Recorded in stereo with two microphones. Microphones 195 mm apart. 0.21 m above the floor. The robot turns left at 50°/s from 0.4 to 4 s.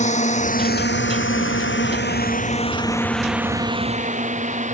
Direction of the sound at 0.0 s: 35° left (ahead or behind).